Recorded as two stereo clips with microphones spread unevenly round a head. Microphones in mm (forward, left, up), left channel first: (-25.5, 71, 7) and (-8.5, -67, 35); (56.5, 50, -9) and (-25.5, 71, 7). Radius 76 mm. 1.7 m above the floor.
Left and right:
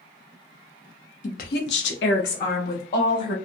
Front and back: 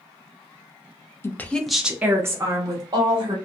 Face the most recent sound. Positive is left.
turn(degrees=130)